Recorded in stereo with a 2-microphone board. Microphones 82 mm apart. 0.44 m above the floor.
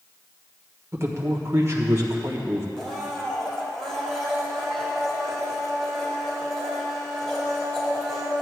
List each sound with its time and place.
0.9 s a man speaking: 35° right (ahead or behind), 1.4 m
2.8 s a blender: 5° left (ahead or behind), 2.5 m